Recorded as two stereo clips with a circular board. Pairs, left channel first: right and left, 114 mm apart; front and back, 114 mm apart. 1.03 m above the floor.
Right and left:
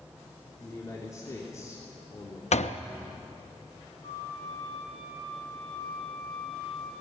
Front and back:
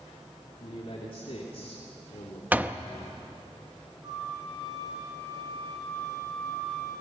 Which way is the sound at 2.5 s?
105° right.